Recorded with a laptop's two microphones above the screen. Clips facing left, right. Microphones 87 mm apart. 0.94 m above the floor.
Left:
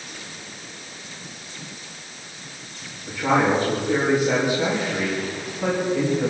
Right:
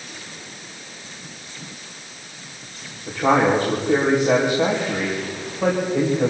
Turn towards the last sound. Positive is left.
turn(degrees=-80)